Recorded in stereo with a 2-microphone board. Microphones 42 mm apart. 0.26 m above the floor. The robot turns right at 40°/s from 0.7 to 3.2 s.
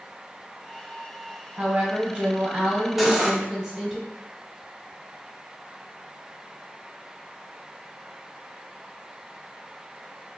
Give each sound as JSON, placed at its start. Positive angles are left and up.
{"t": 1.6, "sound": "a woman speaking", "azimuth_deg": -75, "distance_m": 1.5}
{"t": 3.0, "sound": "cutlery clinking", "side_deg": -5, "distance_m": 0.7}